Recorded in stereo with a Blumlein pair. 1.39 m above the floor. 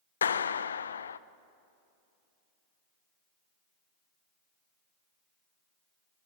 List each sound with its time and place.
0.2 s a clap: 70° left, 0.6 m